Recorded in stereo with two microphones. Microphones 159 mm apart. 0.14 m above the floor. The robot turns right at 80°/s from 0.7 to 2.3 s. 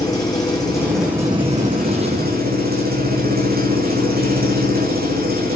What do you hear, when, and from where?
0.0 s an engine running: 155° left, 5 m; by 5.6 s 75° right, 5 m